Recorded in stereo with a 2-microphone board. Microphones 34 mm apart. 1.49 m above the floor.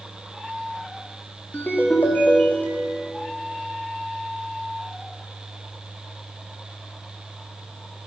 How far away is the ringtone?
About 1.8 m.